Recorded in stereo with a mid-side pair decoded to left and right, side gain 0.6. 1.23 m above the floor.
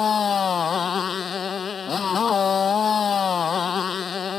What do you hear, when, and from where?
0.0 s a motorcycle: 35° left